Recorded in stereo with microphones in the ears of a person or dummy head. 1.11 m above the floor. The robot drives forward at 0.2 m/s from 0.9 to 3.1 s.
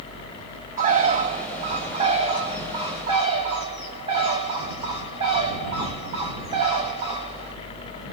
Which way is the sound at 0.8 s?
40° right (ahead or behind).